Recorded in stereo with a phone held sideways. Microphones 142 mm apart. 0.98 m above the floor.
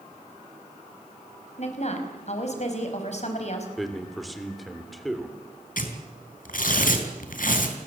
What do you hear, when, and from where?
1.6 s a woman speaking: 50° left (ahead or behind), 5 m
3.8 s a man speaking: centre (ahead or behind), 3.5 m
5.8 s tearing paper: 75° left (ahead or behind), 3.5 m